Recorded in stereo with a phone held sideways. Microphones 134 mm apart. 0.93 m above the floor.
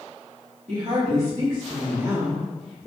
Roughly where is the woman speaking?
Right.